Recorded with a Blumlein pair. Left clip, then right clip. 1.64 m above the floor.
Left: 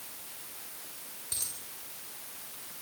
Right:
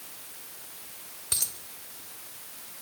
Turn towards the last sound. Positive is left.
turn(degrees=-20)